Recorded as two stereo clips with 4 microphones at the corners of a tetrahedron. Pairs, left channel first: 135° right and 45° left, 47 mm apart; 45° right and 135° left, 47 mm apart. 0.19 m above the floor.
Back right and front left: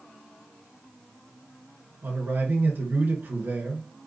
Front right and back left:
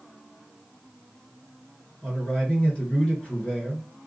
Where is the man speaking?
15° left, 2.5 m.